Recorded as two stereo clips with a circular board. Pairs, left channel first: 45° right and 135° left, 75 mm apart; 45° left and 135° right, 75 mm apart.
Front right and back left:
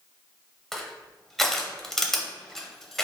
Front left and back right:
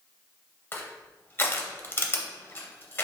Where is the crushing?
35° left, 0.6 m.